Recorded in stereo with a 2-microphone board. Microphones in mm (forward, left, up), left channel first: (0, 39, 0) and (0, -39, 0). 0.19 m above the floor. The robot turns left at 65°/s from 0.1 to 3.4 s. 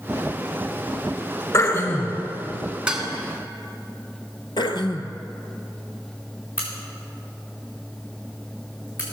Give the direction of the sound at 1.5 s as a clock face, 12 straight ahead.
10 o'clock.